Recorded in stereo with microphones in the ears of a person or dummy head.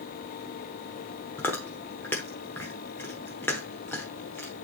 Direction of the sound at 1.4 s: 10° left (ahead or behind).